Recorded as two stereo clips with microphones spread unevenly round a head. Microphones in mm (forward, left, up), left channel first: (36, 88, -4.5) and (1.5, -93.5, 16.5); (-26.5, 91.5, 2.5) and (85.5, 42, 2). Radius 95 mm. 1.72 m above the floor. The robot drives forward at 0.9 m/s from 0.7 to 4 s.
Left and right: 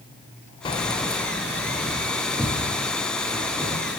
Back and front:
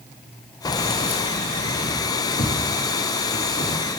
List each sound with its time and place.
0.7 s keys jangling: 135° left, 0.8 m; by 3.8 s 175° left, 3 m